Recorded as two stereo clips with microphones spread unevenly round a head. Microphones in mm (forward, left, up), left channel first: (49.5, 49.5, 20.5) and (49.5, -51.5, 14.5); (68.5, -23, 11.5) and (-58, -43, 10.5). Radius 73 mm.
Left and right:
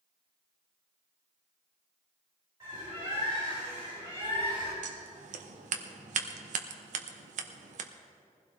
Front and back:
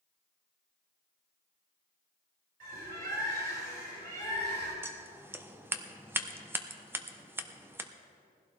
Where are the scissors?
95° right, 0.9 m.